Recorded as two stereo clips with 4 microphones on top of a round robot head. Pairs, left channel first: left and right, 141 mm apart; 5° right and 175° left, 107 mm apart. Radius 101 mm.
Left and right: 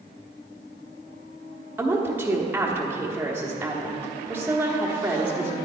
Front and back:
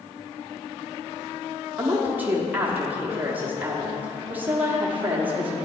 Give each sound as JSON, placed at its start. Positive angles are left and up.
{"t": 1.8, "sound": "a woman speaking", "azimuth_deg": -145, "distance_m": 1.2}